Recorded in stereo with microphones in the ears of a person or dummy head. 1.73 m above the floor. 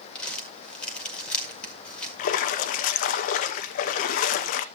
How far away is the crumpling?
About 1.8 m.